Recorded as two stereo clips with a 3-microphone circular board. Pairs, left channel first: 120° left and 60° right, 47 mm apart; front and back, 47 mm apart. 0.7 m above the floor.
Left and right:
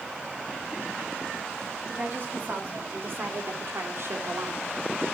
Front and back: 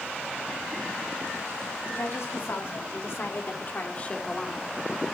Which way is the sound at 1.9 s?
5° right.